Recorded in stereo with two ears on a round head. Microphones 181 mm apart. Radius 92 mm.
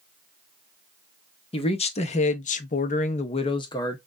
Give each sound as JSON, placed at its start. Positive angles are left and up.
{"t": 1.5, "sound": "a man speaking", "side_deg": 30, "distance_m": 1.0}